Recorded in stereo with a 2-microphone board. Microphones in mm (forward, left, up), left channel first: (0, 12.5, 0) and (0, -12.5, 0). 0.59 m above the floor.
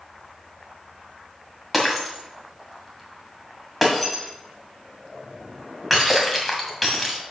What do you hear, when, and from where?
1.7 s breaking glass: centre (ahead or behind), 1.8 m